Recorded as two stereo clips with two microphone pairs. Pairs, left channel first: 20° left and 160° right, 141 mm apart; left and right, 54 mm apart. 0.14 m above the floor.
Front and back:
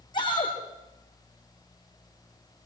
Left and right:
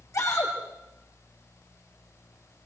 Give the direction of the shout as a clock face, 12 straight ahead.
9 o'clock.